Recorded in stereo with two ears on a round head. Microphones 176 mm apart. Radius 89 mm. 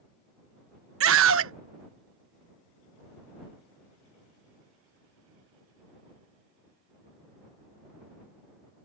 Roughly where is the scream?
Right.